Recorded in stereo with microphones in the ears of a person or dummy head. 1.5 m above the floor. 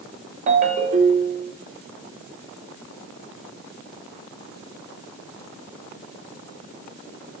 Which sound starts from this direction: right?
A ringtone, at 0.5 s.